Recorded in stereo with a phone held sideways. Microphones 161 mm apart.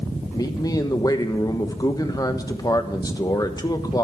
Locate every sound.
0.3 s a man speaking: 25° left (ahead or behind), 1.2 m